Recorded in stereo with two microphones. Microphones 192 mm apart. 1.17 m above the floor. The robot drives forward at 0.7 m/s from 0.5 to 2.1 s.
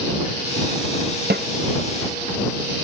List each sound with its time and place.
1.3 s a snare drum: 60° right (ahead or behind), 0.8 m